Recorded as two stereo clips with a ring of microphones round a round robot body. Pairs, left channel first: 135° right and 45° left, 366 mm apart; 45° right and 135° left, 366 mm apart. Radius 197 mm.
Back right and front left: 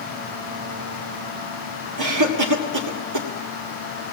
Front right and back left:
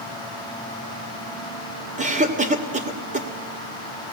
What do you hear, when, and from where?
2.0 s a cough: 70° left, 2 m